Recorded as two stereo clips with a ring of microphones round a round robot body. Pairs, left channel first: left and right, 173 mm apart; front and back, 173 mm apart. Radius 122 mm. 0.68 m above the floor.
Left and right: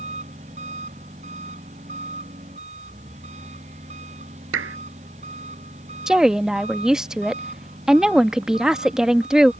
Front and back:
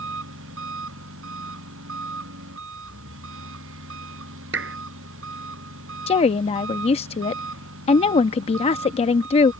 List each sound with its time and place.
0.0 s an engine running: 155° right
4.5 s a clap: 130° right
6.1 s a woman speaking: 5° right